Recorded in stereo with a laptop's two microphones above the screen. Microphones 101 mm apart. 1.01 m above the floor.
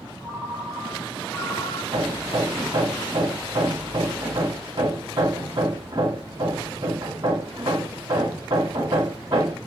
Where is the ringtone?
20° left (ahead or behind), 1.1 m.